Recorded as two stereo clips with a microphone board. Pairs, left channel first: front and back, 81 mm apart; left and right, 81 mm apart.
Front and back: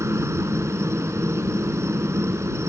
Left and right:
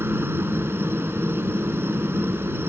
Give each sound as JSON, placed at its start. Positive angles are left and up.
{"t": 0.0, "sound": "a helicopter", "azimuth_deg": -140}